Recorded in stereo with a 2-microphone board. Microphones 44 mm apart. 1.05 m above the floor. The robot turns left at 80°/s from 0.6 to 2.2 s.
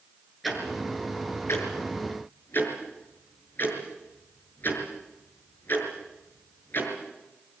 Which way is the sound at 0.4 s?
Centre (ahead or behind).